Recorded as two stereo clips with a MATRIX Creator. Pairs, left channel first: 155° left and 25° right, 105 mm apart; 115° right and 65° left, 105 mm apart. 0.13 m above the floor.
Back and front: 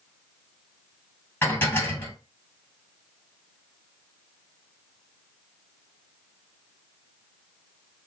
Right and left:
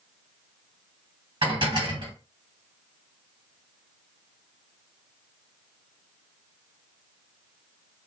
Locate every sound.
1.4 s dishes clattering: 95° left, 1.9 m